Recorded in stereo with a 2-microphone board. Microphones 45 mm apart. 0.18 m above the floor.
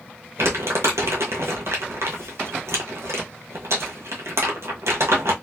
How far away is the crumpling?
About 1.3 m.